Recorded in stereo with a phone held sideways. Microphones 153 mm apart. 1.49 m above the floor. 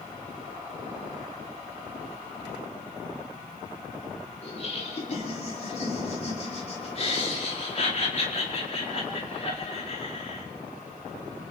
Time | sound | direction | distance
4.4 | laughter | 45° left (ahead or behind) | 4.5 m